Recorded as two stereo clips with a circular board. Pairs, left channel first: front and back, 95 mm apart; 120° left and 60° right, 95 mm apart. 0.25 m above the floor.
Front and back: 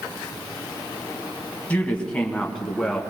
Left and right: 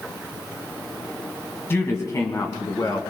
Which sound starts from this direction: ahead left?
A woman speaking, at 1.7 s.